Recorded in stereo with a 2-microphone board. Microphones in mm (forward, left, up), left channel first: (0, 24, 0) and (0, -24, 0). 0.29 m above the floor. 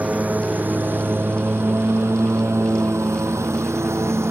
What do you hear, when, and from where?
0.0 s a lawn mower: 30° right (ahead or behind); by 4.3 s 75° right (ahead or behind)